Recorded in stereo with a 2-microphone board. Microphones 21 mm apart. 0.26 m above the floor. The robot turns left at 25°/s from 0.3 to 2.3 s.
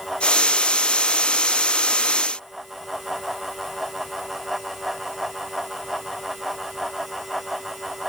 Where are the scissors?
I don't hear scissors.